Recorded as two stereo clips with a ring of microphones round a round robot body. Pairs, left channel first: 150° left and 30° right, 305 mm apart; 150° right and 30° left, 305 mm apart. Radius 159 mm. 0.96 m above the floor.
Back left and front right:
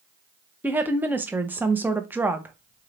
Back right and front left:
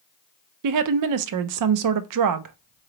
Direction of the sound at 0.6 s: 55° left.